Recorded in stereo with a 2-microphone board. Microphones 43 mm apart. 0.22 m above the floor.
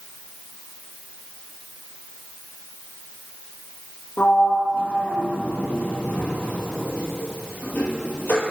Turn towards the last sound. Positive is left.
turn(degrees=70)  # may be behind; listen again after turning